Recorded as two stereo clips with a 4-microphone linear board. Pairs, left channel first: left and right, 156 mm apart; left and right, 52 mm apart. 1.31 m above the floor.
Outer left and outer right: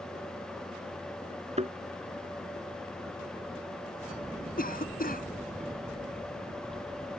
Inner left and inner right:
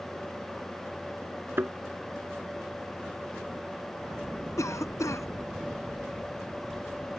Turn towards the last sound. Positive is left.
turn(degrees=65)  # may be behind; listen again after turning